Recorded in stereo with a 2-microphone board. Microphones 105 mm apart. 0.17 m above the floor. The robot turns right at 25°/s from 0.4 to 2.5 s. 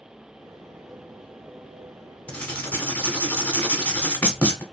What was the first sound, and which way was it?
Writing, 15° left (ahead or behind).